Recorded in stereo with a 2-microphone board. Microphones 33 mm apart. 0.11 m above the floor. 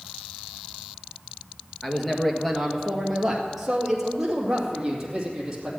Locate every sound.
1.8 s a man speaking: 10° left (ahead or behind), 1.4 m; by 5.7 s 20° right (ahead or behind), 3 m